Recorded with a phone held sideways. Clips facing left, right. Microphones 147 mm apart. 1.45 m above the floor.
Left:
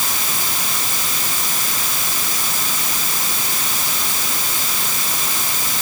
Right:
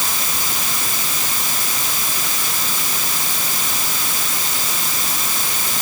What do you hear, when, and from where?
Only background noise.